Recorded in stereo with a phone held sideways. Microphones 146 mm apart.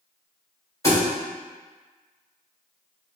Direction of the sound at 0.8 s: 20° left (ahead or behind).